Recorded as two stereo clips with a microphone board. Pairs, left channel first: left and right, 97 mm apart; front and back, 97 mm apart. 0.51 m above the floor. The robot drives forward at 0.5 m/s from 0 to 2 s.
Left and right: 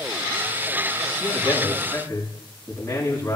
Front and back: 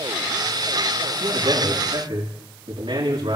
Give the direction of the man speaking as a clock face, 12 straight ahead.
7 o'clock.